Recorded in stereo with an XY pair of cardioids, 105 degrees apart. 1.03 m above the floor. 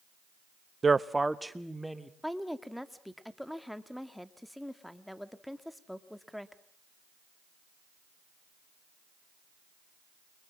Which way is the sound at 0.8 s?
30° right.